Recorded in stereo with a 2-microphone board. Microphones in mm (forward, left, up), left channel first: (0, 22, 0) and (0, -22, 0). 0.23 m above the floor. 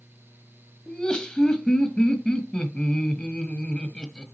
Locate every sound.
0.9 s laughter: 20° left (ahead or behind), 1.0 m